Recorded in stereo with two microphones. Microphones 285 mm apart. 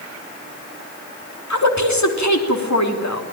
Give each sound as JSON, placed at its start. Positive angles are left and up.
{"t": 1.5, "sound": "a woman speaking", "side_deg": 75, "distance_m": 3.5}